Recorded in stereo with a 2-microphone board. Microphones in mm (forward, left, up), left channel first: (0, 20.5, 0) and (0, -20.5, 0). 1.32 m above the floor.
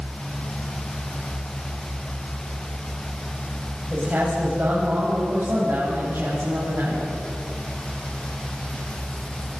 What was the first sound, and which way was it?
A man speaking, 50° right (ahead or behind).